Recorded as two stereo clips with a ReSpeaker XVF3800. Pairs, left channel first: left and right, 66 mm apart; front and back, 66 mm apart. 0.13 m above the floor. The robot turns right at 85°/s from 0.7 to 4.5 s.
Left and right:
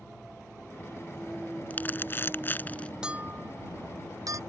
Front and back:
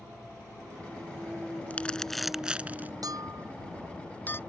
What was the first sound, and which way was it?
Crumpling, 45° left.